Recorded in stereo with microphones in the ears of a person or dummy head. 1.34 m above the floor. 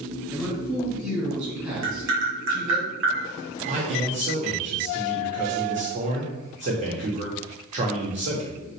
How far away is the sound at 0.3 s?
About 1.8 m.